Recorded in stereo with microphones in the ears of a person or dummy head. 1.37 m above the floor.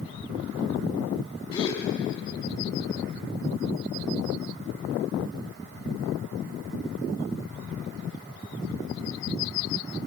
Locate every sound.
1.5 s a gasp: 25° left (ahead or behind), 4.5 m